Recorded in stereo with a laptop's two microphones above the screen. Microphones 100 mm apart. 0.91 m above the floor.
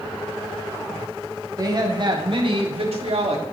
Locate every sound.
1.6 s a woman speaking: 35° right (ahead or behind), 1.6 m; by 3.4 s 75° right (ahead or behind), 1.8 m